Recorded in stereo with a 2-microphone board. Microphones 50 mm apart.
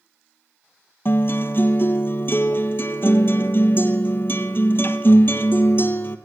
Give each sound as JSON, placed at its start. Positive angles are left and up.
{"t": 1.1, "sound": "a guitar", "side_deg": 50, "distance_m": 1.0}